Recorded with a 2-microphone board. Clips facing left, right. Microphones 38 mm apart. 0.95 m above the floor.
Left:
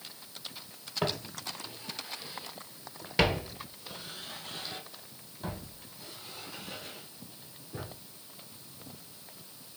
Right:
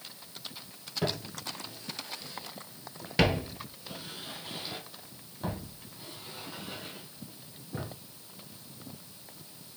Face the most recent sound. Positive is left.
turn(degrees=-25)  # may be behind; listen again after turning